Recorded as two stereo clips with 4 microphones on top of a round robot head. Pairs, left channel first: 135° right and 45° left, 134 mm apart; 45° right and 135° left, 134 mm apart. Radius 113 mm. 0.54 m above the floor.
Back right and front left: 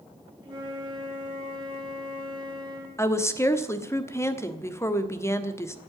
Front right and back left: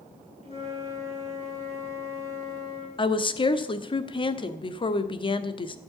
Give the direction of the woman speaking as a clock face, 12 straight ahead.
3 o'clock.